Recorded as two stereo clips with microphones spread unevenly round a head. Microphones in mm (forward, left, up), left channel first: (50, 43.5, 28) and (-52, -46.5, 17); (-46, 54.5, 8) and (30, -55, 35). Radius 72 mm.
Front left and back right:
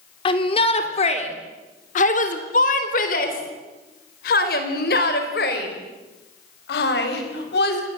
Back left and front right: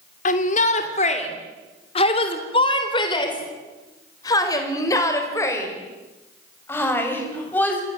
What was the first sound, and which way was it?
A shout, 95° left.